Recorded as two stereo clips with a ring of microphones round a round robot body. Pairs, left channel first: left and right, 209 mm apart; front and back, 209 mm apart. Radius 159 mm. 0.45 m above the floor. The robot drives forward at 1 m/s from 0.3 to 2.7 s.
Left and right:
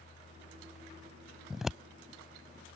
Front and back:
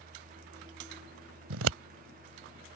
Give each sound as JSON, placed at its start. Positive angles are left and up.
{"t": 1.5, "sound": "scissors", "azimuth_deg": 180}